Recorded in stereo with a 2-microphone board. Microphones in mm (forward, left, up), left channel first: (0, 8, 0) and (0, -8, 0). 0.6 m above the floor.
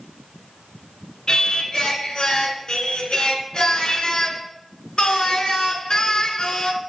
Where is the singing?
70° left (ahead or behind), 1.5 m.